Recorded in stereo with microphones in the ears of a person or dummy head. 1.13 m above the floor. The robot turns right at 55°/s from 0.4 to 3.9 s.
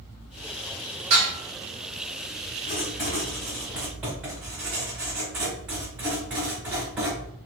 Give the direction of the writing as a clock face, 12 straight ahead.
8 o'clock.